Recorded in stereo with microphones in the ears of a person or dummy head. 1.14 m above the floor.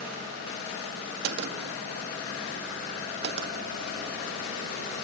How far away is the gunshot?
About 1.1 m.